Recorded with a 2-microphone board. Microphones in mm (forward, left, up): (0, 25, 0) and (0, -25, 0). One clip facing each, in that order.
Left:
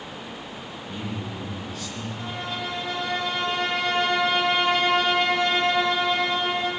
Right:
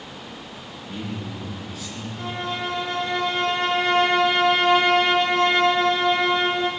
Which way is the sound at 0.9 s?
5° right (ahead or behind).